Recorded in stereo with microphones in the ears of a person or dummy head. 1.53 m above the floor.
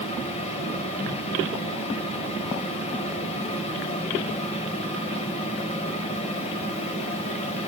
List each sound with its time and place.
0.0 s a fan: 35° left (ahead or behind), 3.5 m